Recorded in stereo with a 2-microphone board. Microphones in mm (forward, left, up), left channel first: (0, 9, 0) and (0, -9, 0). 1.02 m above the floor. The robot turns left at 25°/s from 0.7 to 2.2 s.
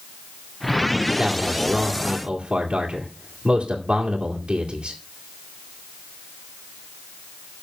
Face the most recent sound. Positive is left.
turn(degrees=-60)  # may be behind; listen again after turning